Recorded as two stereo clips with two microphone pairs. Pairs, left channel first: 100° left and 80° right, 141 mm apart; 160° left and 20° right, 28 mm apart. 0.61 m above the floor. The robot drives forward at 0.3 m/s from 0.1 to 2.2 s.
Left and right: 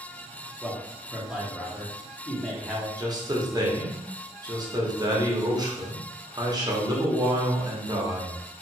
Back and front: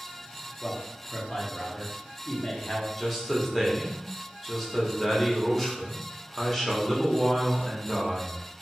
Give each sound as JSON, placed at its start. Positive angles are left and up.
{"t": 0.6, "sound": "a man speaking", "azimuth_deg": -160, "distance_m": 0.7}
{"t": 3.0, "sound": "a man speaking", "azimuth_deg": -125, "distance_m": 0.7}